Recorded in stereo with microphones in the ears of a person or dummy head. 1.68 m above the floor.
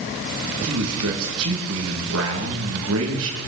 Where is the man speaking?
80° right, 2.5 m.